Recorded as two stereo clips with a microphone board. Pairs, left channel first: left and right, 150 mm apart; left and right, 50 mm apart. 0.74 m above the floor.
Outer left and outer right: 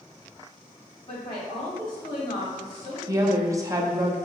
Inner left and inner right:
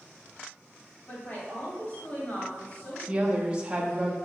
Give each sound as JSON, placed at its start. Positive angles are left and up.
{"t": 1.1, "sound": "a woman speaking", "side_deg": 35, "distance_m": 1.9}
{"t": 3.1, "sound": "a woman speaking", "side_deg": -20, "distance_m": 0.7}